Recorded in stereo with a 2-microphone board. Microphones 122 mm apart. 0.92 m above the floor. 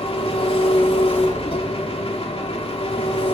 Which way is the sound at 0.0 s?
55° left (ahead or behind).